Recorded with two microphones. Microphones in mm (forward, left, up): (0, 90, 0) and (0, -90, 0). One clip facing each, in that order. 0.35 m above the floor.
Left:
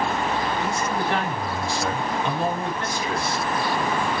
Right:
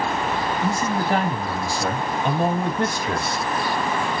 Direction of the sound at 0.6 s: 35° right (ahead or behind).